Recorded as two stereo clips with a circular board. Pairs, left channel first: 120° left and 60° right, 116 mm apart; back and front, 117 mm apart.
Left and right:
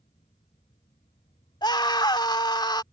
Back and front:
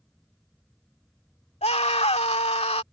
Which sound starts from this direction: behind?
A scream, at 1.6 s.